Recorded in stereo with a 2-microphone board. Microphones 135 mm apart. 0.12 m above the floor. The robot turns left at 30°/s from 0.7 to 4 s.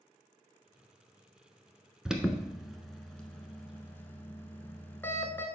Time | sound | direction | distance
2.0 | an alarm | 5° right (ahead or behind) | 0.9 m